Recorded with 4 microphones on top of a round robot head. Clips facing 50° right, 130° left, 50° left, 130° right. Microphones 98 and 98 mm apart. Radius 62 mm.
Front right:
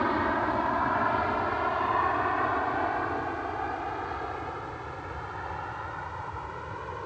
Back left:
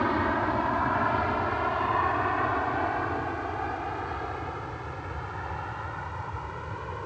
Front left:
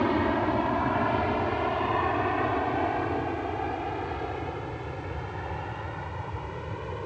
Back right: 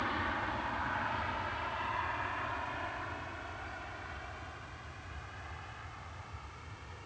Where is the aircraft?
35° left.